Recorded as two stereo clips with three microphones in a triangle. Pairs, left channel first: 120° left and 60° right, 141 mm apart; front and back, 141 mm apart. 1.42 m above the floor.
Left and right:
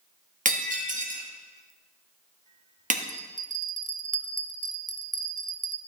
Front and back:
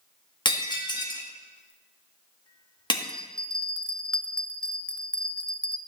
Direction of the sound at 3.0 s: 85° right.